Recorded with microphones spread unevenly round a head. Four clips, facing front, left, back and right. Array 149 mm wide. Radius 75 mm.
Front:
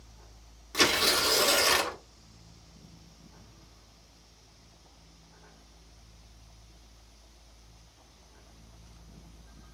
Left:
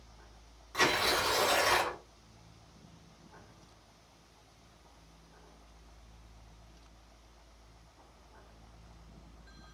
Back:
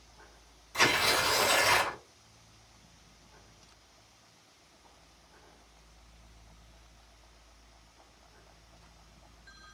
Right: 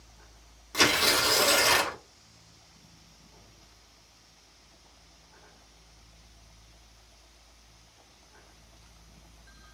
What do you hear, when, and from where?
0.7 s tearing paper: 35° right, 1.1 m